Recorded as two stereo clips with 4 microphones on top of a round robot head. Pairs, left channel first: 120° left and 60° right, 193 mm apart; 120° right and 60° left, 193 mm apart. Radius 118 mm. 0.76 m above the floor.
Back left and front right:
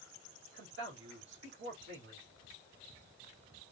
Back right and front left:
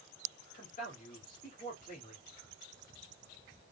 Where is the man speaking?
75° right, 2.5 m.